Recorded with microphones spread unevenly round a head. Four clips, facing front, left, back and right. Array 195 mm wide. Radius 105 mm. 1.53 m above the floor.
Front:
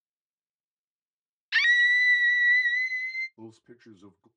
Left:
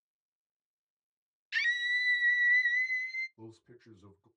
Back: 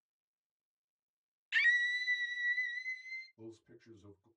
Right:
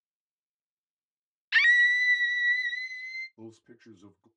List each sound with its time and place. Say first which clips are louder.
1.5 s a scream: right 9 dB, front 9 dB; 55° right, 0.6 m; by 3.3 s 5° left, 1.6 m
3.4 s a man speaking: right 4 dB, front 6 dB; 35° right, 1.4 m